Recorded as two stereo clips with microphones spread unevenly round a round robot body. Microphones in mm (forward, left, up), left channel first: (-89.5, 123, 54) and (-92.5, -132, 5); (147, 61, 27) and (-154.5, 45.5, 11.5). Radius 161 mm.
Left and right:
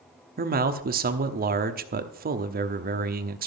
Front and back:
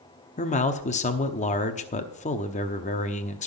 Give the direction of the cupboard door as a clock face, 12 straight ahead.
No cupboard door in this recording.